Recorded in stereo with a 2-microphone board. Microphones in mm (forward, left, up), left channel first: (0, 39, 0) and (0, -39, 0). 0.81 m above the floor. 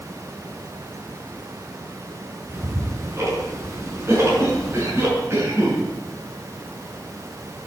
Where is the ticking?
40° right (ahead or behind), 7 m.